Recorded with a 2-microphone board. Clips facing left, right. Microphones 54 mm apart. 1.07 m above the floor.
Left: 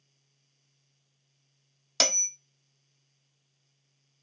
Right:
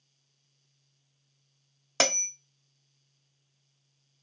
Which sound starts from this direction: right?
A bell, at 2.0 s.